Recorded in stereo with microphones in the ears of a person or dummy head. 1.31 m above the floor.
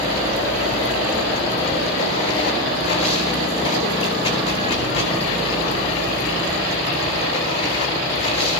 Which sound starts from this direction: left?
Running water, at 0.0 s.